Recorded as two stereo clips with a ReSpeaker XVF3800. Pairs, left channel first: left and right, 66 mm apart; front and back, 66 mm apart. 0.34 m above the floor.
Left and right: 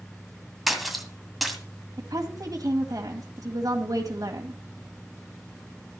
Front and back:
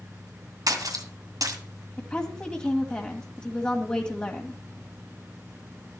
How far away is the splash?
About 2 m.